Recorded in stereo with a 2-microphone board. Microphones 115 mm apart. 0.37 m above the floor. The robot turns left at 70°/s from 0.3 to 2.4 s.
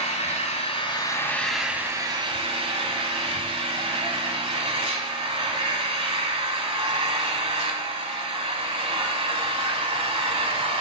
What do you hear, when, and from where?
0.0 s an engine running: 85° left, 1.2 m; by 10.8 s 60° right, 1.2 m